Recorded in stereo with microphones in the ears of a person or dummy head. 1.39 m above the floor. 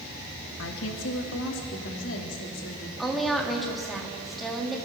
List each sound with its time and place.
0.6 s a woman speaking: 80° left, 1.8 m; by 2.9 s 75° left (ahead or behind), 3 m
3.0 s a woman speaking: centre (ahead or behind), 2.5 m